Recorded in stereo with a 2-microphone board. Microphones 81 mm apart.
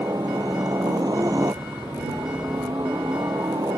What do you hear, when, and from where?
0.0 s a helicopter: 45° right (ahead or behind)